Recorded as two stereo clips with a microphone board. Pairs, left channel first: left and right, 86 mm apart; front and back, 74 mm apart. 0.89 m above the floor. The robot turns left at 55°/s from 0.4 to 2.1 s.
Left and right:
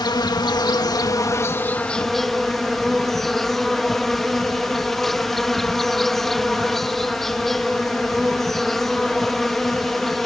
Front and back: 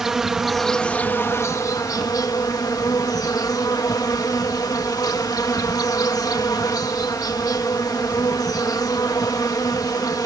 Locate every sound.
0.0 s an insect: 95° left; by 10.3 s 5° left